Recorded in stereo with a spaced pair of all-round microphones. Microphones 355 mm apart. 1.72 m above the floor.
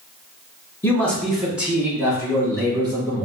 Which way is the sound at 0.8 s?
5° left (ahead or behind).